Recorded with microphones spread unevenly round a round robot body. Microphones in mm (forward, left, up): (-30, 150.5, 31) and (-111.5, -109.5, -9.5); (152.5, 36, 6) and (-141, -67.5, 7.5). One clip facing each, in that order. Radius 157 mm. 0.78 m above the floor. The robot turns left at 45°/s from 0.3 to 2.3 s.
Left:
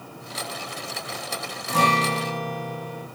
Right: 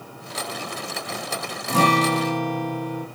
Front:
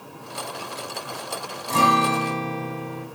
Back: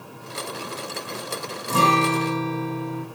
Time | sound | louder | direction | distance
1.7 | a guitar | right 5 dB, back 1 dB | 90° right | 4.5 m